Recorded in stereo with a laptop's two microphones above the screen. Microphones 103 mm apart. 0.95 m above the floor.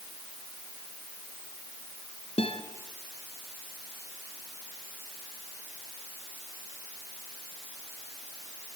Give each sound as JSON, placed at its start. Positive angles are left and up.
{"t": 2.4, "sound": "a guitar", "side_deg": 70, "distance_m": 2.0}